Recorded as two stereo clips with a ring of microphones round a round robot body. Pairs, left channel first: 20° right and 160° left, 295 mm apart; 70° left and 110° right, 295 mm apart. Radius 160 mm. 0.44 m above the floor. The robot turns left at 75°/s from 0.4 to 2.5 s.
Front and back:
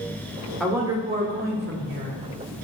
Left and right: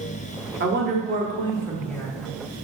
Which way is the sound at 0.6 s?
110° right.